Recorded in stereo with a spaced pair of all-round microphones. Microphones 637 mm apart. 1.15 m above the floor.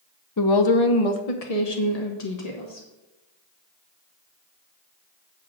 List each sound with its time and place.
0.4 s a woman speaking: 30° left (ahead or behind), 0.7 m; by 2.9 s 80° left, 2 m